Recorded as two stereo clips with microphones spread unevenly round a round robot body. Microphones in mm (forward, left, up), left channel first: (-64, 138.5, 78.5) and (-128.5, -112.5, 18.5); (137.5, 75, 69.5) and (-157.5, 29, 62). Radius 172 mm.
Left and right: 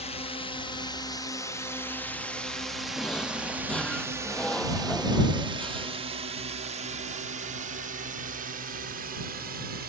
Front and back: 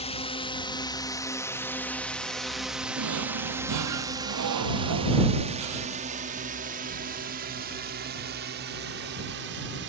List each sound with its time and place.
0.0 s a drone: 20° left; by 9.9 s 130° right
3.0 s a drawer: 160° left